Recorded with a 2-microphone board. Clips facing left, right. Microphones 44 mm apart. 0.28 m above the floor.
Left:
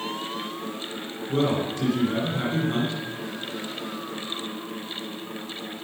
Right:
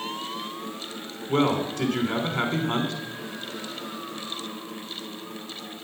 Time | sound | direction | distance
1.3 | a man speaking | 60° right (ahead or behind) | 3 m